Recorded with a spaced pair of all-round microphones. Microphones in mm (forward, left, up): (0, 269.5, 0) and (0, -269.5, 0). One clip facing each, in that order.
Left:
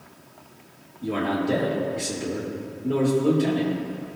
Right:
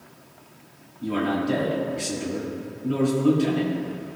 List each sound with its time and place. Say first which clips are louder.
1.0 s a man speaking: right 1 dB; 30° right (ahead or behind), 3.5 m